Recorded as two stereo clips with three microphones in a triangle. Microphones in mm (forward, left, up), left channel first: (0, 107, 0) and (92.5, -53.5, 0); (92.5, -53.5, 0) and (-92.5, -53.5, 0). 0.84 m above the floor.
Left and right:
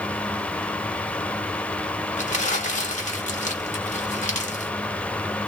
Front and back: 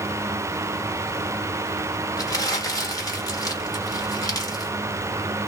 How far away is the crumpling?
About 1.3 m.